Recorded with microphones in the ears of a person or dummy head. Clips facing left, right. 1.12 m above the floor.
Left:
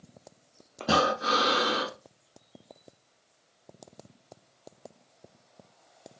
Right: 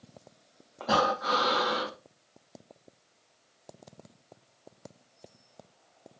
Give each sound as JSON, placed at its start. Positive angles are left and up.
{"t": 0.8, "sound": "breathing", "side_deg": 25, "distance_m": 0.6}